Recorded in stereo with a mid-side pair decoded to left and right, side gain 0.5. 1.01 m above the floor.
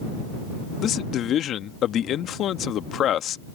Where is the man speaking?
60° left.